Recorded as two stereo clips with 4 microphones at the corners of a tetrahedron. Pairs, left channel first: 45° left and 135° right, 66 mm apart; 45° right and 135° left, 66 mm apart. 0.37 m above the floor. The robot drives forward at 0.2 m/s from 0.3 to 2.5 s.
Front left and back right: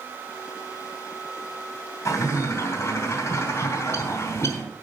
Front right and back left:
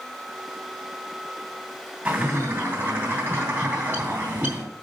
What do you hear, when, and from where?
2.0 s a bird: 85° left, 2.5 m